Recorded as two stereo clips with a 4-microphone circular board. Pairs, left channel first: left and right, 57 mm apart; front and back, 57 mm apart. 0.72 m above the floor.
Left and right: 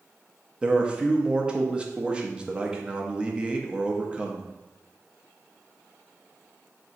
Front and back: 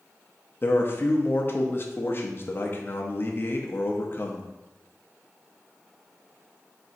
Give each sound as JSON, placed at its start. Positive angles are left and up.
{"t": 0.6, "sound": "a man speaking", "azimuth_deg": -25, "distance_m": 0.6}